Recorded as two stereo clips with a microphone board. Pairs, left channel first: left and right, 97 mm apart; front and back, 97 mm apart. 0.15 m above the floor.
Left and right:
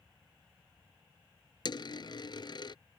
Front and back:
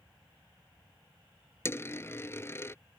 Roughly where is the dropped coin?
Ahead left.